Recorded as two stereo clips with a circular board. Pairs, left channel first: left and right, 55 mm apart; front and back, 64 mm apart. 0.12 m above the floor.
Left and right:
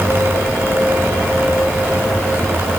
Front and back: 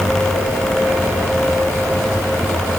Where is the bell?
No bell in this recording.